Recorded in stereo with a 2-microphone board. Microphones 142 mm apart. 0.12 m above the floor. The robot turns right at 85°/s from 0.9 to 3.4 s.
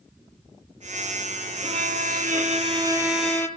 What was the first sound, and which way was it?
A violin, 140° right.